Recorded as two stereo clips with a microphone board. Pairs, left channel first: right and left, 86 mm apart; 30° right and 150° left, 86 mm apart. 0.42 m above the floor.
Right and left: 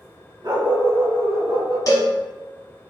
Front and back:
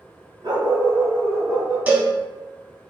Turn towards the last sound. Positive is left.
turn(degrees=-140)